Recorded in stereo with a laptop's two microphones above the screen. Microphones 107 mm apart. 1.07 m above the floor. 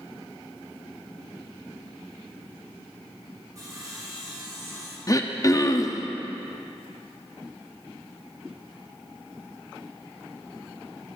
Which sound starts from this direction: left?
Throat clearing, at 5.1 s.